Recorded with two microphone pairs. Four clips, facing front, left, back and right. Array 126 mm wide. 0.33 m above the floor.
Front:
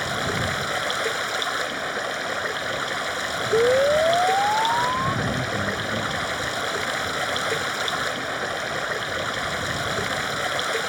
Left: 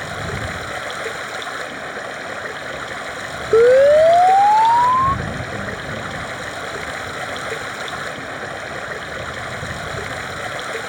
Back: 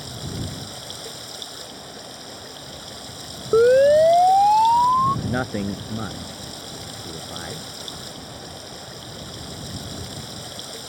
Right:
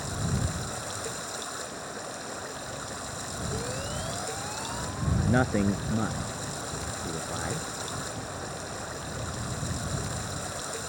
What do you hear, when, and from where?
0.0 s running water: 30° left
3.5 s a siren: 115° left; by 5.2 s 120° left
5.2 s a man speaking: 145° right